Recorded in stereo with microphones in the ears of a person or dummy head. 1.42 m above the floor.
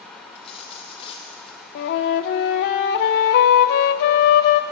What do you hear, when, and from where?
0.3 s a dropped coin: 30° left (ahead or behind), 1.0 m
1.8 s a flute: 55° left (ahead or behind), 0.6 m